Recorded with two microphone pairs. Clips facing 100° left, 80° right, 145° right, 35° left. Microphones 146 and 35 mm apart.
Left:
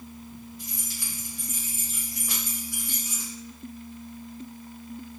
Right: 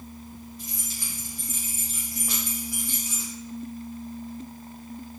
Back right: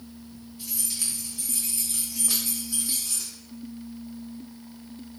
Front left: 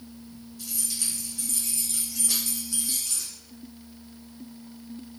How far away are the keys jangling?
About 1.6 m.